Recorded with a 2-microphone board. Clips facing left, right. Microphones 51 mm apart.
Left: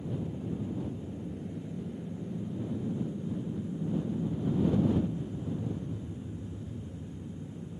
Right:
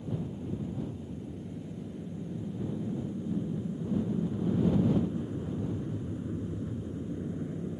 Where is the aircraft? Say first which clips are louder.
Even; 15° left (ahead or behind); by 7.8 s 60° right (ahead or behind).